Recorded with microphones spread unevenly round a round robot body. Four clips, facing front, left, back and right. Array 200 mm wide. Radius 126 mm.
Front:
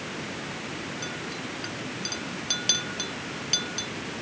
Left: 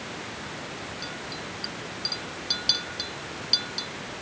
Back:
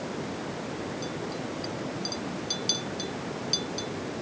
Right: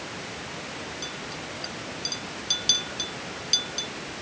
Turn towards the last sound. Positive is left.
turn(degrees=20)